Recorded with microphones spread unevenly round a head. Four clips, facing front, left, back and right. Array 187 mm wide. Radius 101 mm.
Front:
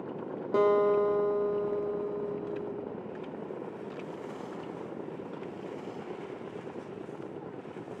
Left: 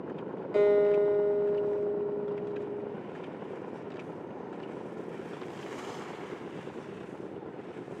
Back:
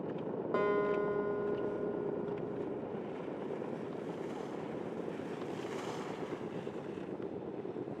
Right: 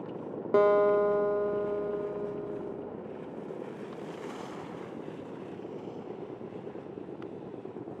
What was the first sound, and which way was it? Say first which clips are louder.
A guitar: even, front 8 dB; 60° right.